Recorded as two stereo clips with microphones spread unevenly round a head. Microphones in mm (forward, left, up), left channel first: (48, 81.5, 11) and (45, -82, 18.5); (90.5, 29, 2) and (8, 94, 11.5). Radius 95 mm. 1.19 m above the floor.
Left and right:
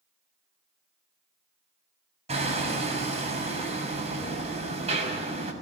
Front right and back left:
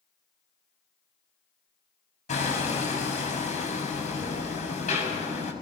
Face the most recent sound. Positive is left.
turn(degrees=-40)